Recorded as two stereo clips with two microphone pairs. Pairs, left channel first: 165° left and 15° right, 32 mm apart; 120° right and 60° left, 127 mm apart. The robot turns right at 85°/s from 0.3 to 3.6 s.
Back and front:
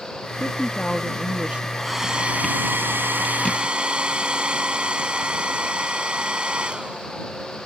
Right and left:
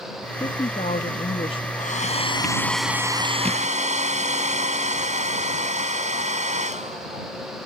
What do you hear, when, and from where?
0.4 s a woman speaking: 175° right; by 1.7 s 65° right
1.8 s a hair dryer: 115° right; by 7.3 s 40° left